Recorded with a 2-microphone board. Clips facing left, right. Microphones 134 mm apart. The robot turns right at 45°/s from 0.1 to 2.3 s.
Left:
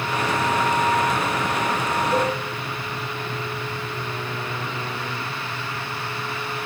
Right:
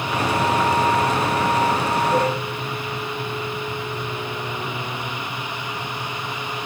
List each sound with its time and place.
2.1 s a cowbell: 45° right (ahead or behind), 7.5 m; by 2.3 s 40° right (ahead or behind), 7.5 m